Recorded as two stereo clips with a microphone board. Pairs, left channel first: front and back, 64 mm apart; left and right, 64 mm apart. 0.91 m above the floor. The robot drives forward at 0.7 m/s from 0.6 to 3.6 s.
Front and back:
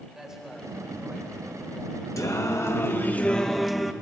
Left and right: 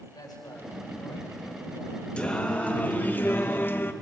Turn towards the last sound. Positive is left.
turn(degrees=90)